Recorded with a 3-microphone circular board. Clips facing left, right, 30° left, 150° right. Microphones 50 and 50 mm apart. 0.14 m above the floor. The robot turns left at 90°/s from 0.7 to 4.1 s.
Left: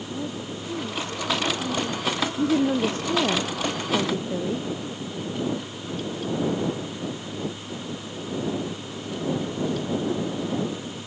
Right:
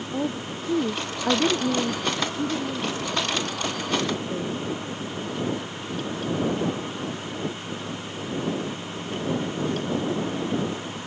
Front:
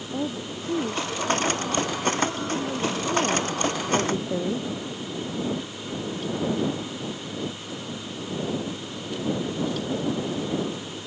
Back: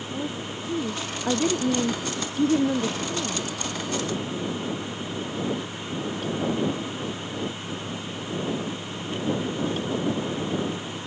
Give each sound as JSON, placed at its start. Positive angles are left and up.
{"t": 0.1, "sound": "a woman speaking", "azimuth_deg": -40}